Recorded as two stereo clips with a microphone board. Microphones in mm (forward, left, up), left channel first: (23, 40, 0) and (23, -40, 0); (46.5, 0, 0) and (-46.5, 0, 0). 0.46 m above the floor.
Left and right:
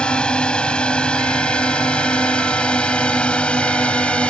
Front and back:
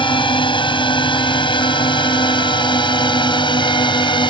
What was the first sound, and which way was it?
A drone, 15° left.